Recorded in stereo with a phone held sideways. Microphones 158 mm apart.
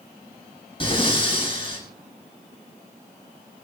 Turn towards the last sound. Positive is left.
turn(degrees=35)  # may be behind; listen again after turning